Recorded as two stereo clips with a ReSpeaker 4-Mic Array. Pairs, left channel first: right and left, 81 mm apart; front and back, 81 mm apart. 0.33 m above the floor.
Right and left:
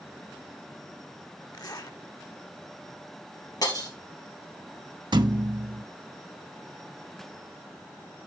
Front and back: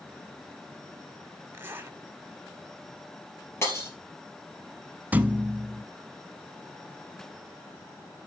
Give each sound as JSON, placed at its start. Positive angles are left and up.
{"t": 1.5, "sound": "a zipper", "azimuth_deg": -120, "distance_m": 1.0}
{"t": 3.6, "sound": "breaking glass", "azimuth_deg": -60, "distance_m": 2.5}
{"t": 5.1, "sound": "a thud", "azimuth_deg": 110, "distance_m": 0.5}